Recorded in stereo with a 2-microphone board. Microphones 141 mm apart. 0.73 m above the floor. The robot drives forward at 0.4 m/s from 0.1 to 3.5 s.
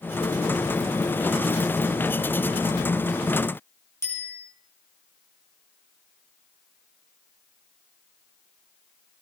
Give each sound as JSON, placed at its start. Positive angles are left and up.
{"t": 4.0, "sound": "a bicycle bell", "side_deg": 20, "distance_m": 4.5}